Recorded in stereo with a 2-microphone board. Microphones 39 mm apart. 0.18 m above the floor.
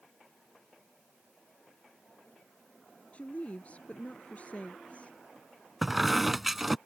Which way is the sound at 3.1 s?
35° left (ahead or behind).